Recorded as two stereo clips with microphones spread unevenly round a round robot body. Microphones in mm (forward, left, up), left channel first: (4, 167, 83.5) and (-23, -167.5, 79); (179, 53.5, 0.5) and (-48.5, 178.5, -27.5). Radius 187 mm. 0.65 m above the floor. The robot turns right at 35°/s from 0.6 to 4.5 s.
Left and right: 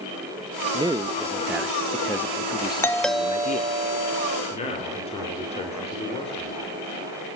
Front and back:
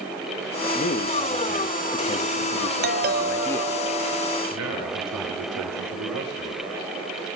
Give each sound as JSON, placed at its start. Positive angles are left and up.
{"t": 0.7, "sound": "a man speaking", "azimuth_deg": -45, "distance_m": 0.8}
{"t": 2.8, "sound": "a doorbell", "azimuth_deg": 165, "distance_m": 1.1}
{"t": 4.5, "sound": "a man speaking", "azimuth_deg": 155, "distance_m": 3.0}